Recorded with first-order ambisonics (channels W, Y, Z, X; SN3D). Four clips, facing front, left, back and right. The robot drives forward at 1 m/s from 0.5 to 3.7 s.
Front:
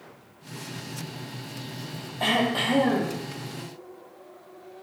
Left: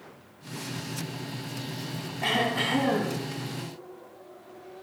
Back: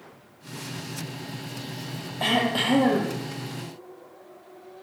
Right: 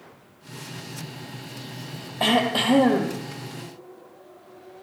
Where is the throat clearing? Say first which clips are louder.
Right 5 dB, even; 90° right, 3 m; by 3.2 s 110° right, 3 m.